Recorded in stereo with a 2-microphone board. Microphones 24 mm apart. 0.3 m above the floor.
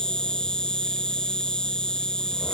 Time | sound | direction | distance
0.0 | an insect | 35° left (ahead or behind) | ?